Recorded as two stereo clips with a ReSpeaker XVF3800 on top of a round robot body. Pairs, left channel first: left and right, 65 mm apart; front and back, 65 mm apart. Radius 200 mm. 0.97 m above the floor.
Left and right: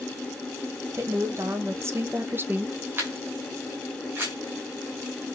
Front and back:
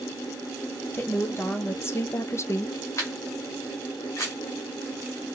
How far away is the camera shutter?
About 0.6 m.